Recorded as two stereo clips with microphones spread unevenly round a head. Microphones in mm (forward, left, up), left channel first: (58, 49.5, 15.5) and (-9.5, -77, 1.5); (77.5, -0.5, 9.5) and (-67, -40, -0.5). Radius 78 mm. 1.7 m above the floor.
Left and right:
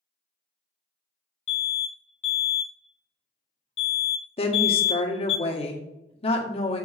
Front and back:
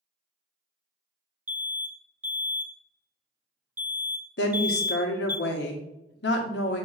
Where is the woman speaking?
15° left, 1.6 m.